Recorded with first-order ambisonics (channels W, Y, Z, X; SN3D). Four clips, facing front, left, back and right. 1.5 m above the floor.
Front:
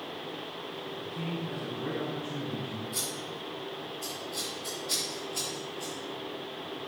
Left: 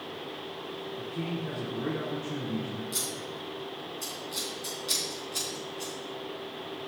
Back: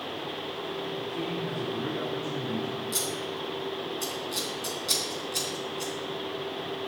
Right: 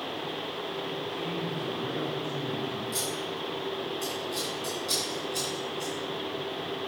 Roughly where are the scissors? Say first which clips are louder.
Right 3 dB, back 4 dB; behind.